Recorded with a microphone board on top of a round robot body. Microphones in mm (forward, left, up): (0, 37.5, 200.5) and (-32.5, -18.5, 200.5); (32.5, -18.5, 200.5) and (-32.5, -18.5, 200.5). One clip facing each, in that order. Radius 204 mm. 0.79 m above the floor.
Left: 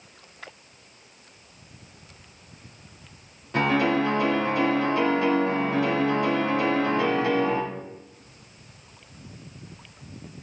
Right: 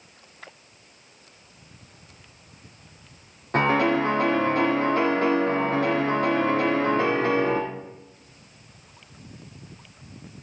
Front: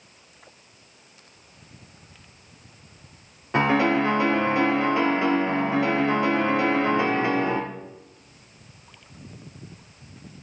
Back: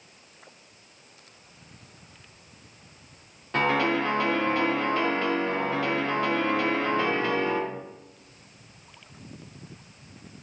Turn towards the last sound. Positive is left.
turn(degrees=-75)